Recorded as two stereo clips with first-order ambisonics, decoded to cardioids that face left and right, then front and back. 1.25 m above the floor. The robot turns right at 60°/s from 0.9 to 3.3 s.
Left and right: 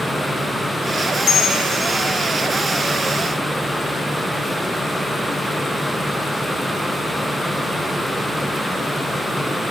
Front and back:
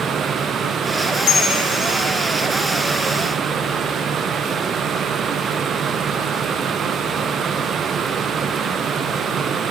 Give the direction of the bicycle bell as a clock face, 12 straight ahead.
11 o'clock.